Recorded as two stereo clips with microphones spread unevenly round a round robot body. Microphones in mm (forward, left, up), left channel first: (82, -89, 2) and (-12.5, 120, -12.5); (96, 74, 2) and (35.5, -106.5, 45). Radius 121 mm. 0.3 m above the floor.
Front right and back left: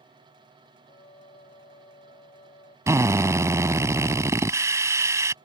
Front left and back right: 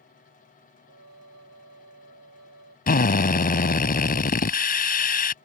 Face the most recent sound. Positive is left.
turn(degrees=40)